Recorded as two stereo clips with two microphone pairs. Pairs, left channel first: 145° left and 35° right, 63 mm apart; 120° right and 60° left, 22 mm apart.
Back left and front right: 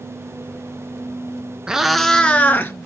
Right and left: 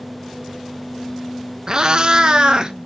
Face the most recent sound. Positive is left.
turn(degrees=95)